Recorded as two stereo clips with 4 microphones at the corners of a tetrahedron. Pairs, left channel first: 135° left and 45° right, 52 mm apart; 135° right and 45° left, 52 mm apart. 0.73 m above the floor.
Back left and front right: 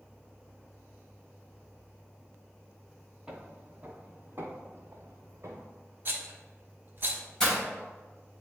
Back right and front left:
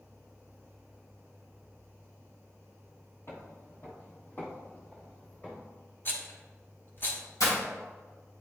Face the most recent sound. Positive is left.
turn(degrees=-145)